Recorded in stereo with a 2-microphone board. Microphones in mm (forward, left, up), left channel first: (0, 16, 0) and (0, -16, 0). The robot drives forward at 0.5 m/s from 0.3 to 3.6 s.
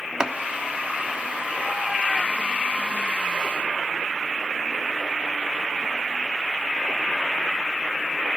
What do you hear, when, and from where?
0.2 s chopping: 25° right (ahead or behind), 0.6 m